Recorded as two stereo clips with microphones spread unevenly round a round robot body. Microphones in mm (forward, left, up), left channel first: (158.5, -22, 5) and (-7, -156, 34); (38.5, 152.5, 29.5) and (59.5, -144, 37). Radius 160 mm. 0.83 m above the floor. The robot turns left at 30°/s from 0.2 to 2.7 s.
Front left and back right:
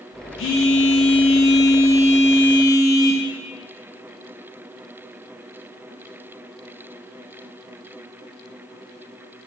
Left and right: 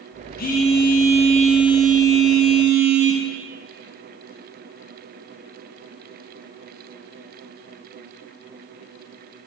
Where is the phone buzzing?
35° left, 0.5 m; by 3.2 s 35° right, 0.5 m.